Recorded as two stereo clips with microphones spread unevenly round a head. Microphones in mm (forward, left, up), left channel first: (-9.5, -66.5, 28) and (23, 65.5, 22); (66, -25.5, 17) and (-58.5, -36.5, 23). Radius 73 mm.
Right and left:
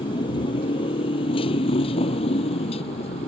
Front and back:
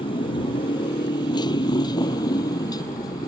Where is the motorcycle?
45° right; by 3.3 s 55° right.